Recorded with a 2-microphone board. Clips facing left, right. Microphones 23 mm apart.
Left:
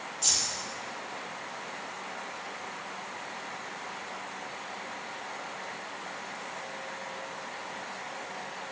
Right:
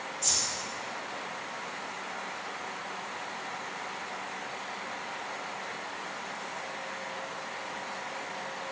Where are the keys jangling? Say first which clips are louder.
Left 2 dB; 25° left (ahead or behind), 3.5 m.